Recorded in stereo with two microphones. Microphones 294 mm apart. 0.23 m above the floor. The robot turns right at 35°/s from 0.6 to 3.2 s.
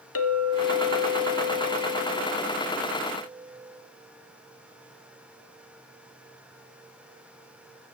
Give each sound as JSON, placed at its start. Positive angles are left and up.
{"t": 0.1, "sound": "a clink", "azimuth_deg": 80, "distance_m": 1.1}